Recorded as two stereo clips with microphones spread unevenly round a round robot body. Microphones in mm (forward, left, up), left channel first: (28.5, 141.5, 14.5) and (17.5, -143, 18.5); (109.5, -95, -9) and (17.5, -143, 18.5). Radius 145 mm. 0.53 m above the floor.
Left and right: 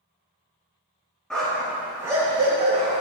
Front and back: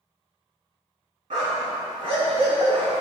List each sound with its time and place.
1.3 s a dog barking: 175° left, 2.5 m; by 3.0 s 160° right, 2.5 m